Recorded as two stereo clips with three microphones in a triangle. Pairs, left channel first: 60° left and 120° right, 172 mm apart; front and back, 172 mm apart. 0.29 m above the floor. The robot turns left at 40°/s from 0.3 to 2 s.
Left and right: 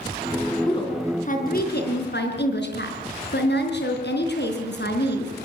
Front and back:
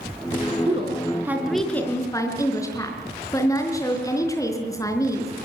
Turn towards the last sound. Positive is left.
turn(degrees=70)